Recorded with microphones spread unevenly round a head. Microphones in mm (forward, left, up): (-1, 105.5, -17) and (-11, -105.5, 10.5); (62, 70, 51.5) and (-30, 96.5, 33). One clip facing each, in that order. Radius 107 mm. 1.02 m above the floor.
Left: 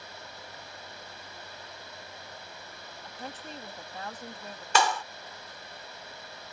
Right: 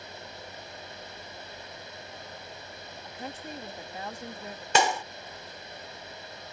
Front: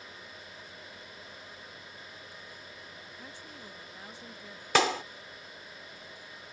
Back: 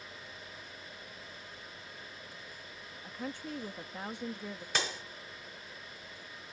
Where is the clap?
20° right.